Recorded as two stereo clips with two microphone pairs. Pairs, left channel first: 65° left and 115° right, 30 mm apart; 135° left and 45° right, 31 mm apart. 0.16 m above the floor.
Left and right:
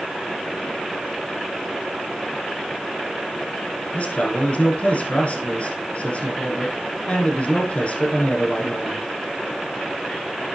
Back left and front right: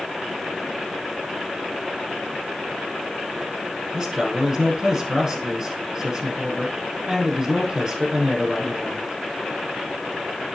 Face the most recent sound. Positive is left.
turn(degrees=25)